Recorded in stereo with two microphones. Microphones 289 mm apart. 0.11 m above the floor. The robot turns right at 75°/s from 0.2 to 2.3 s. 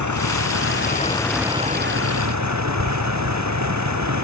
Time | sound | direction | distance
0.0 | a vehicle | 95° left | ?